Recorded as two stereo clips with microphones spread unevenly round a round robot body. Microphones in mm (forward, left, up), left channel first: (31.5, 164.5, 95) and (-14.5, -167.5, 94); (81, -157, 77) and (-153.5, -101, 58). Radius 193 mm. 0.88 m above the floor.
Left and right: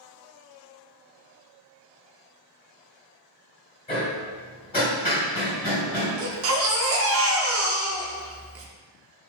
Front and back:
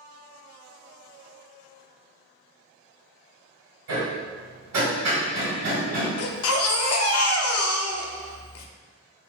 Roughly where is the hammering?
Behind left.